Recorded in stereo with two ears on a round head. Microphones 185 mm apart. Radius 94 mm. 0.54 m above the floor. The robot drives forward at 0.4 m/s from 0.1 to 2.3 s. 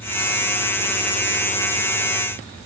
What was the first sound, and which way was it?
Only background noise.